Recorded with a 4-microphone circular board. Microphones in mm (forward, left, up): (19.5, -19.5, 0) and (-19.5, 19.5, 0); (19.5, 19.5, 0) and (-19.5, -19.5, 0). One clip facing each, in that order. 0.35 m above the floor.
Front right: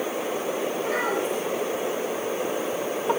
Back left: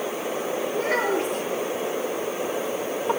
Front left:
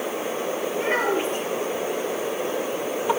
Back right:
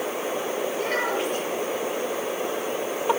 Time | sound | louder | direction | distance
0.7 | a child speaking | back left 5 dB, front left 5 dB | 110° left | 6 m